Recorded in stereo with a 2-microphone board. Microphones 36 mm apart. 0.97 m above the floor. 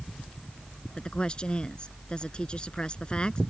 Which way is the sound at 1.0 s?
30° left (ahead or behind).